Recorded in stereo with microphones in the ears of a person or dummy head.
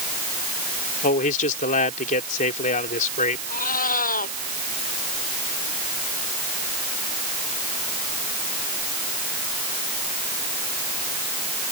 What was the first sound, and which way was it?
A man speaking, 45° left (ahead or behind).